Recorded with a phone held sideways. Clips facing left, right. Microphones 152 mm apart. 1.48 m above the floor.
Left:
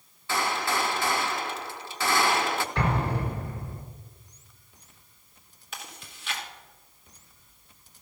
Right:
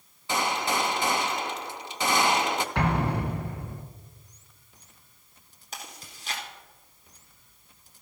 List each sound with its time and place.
0.3 s a gunshot: 20° right (ahead or behind), 0.6 m
2.8 s an explosion: 65° right (ahead or behind), 1.9 m
5.7 s chewing: 40° right (ahead or behind), 2 m